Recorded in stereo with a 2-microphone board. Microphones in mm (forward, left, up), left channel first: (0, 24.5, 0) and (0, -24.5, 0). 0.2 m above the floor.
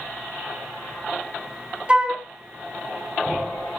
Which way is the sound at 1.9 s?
20° right (ahead or behind).